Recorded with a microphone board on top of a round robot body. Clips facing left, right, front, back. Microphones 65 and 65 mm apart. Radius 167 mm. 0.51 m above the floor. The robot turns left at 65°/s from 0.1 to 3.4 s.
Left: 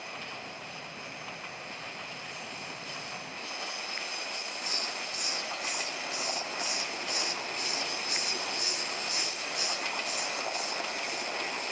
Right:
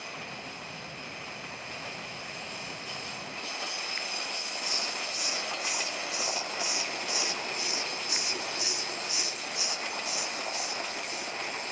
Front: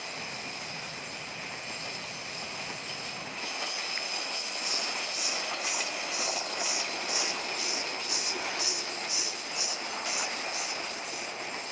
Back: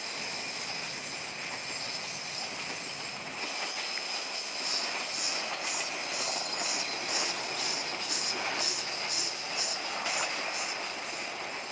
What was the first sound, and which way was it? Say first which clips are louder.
A hiss: right 1 dB, front 2 dB; 135° left.